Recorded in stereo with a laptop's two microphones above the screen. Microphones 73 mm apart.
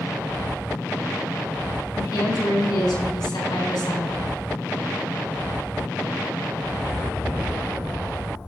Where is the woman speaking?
80° left, 3.5 m.